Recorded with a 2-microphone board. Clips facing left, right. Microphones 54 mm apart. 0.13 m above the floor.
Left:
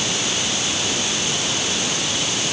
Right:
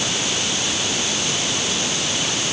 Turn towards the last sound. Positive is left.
No sound to turn to.